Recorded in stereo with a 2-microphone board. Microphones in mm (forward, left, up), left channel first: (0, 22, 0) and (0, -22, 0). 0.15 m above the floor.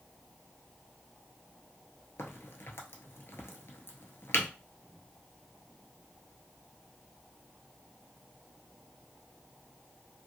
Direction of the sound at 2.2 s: 70° left (ahead or behind).